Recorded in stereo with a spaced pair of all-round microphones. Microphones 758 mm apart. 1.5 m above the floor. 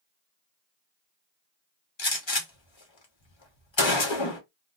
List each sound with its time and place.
2.0 s a gunshot: 40° left (ahead or behind), 1.1 m